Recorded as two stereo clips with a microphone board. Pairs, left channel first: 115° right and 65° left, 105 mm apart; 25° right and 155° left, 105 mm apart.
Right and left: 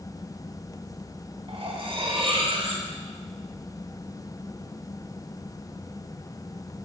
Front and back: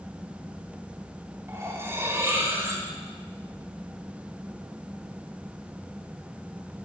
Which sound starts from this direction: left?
Cutlery clinking, at 1.5 s.